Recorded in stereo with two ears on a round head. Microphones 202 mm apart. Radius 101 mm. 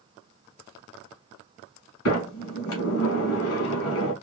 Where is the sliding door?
65° left (ahead or behind), 1.1 m.